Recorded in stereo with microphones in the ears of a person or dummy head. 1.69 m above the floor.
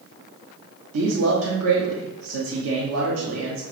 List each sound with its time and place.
0.9 s a man speaking: 90° right, 1.2 m